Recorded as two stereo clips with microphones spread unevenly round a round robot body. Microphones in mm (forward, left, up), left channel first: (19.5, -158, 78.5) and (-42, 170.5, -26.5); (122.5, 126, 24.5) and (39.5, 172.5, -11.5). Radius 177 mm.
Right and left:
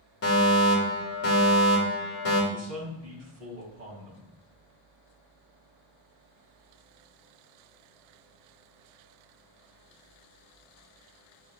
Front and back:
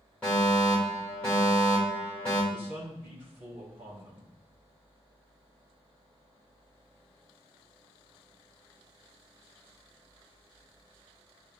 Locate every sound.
0.2 s a fire alarm: 135° right, 2.5 m
2.5 s a man speaking: 160° left, 4 m